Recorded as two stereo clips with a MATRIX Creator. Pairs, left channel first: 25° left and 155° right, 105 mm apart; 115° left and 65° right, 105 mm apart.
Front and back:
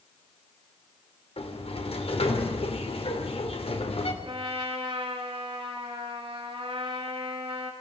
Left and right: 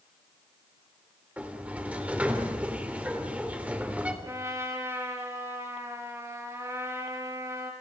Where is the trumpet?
130° right, 4.5 m.